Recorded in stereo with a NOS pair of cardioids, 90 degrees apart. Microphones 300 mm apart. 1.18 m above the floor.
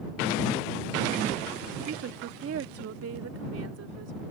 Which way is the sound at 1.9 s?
45° right.